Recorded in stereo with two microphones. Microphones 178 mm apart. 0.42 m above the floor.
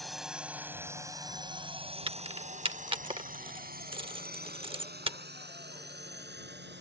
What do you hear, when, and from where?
0.0 s a drone: centre (ahead or behind); by 6.8 s 75° right (ahead or behind)
2.1 s keys jangling: 30° right (ahead or behind)